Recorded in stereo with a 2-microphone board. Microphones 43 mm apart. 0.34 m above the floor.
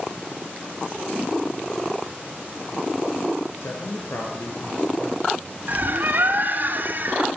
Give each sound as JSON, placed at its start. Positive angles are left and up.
{"t": 3.6, "sound": "a man speaking", "side_deg": 70, "distance_m": 5.0}
{"t": 5.7, "sound": "a bird", "side_deg": -45, "distance_m": 2.5}